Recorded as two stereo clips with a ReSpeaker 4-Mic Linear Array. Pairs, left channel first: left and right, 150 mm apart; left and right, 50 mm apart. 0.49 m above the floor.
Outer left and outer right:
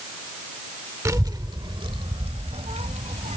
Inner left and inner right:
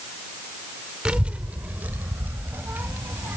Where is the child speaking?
20° right (ahead or behind); by 3.4 s 55° right (ahead or behind).